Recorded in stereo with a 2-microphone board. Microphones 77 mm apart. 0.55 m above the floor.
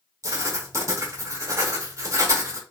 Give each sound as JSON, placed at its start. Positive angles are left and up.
{"t": 0.2, "sound": "writing", "side_deg": -45, "distance_m": 0.9}